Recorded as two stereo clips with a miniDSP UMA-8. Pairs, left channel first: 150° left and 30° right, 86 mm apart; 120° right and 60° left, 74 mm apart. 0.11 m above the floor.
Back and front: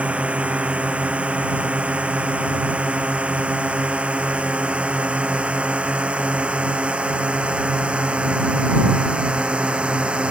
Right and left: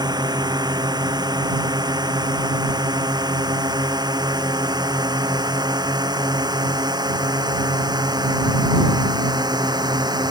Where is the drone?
45° left.